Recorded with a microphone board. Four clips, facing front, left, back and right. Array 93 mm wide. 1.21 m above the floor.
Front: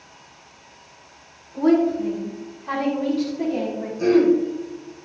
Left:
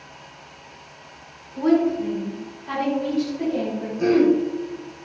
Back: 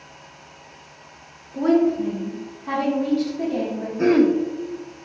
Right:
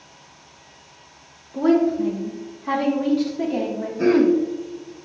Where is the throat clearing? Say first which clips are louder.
Right 1 dB, even; 145° right, 1.3 m.